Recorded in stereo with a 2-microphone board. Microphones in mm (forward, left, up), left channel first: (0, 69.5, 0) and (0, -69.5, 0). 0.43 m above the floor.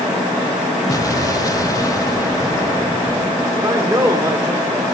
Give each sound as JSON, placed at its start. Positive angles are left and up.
{"t": 0.9, "sound": "an explosion", "side_deg": 25, "distance_m": 0.7}
{"t": 3.5, "sound": "a man speaking", "side_deg": -30, "distance_m": 1.3}